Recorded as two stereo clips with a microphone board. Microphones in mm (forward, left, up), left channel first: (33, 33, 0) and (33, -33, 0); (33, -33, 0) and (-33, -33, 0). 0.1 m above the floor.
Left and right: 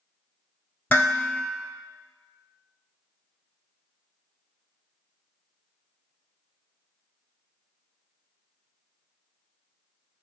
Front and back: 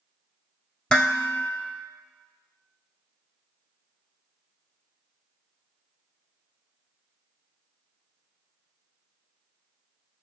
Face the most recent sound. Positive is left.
turn(degrees=60)